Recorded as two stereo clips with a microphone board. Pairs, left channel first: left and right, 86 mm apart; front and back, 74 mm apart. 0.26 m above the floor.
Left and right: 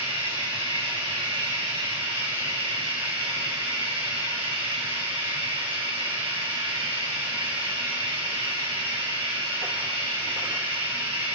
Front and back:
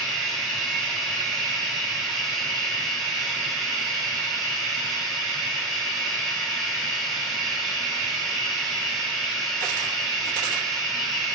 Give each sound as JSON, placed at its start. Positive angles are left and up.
{"t": 0.0, "sound": "running water", "azimuth_deg": -90, "distance_m": 3.0}